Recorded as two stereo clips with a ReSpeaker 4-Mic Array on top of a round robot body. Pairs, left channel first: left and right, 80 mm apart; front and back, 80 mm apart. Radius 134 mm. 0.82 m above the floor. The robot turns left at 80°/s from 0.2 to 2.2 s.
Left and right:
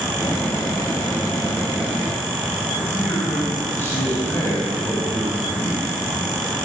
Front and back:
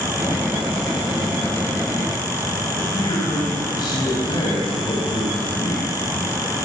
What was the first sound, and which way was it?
A man speaking, 30° left.